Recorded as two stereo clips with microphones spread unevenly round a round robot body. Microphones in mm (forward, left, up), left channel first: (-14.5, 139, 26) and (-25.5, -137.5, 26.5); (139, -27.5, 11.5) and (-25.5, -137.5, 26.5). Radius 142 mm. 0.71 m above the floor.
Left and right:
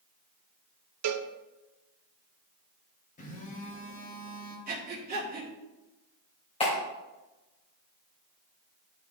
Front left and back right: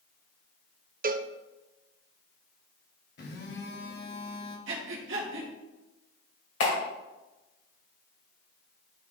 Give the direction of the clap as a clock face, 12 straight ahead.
11 o'clock.